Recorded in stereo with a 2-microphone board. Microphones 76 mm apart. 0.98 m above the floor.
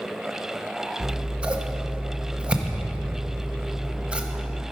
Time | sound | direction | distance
1.0 | scissors | 15° right (ahead or behind) | 0.7 m